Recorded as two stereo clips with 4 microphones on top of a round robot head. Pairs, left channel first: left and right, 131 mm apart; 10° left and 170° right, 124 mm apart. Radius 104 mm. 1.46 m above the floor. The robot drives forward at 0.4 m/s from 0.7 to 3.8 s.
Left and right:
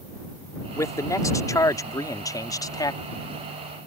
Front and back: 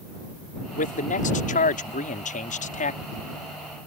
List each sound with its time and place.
0.8 s a man speaking: 25° left; by 3.0 s 30° left